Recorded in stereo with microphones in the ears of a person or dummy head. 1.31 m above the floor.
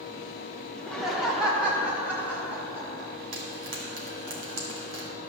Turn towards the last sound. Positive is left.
turn(degrees=-70)  # may be behind; listen again after turning